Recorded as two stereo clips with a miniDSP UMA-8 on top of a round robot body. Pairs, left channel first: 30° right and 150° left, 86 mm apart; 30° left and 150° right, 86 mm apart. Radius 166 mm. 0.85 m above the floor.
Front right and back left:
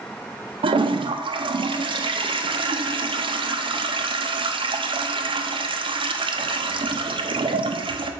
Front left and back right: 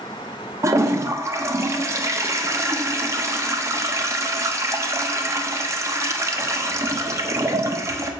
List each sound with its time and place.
0.6 s a toilet flushing: 155° left, 0.8 m